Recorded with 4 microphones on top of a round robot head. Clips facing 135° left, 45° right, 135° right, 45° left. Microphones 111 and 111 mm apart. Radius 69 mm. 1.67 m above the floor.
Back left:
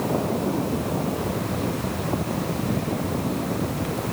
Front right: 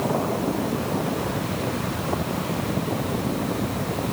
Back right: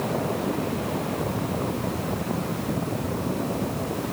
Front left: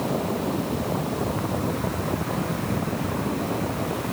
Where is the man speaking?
I don't hear a man speaking.